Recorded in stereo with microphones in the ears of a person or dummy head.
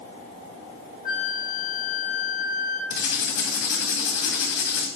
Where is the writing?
65° left (ahead or behind), 2 m.